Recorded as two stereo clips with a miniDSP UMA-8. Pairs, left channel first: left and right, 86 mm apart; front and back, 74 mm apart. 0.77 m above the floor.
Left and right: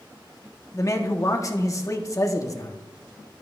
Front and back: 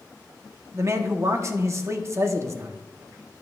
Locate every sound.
0.7 s a man speaking: 135° left, 1.0 m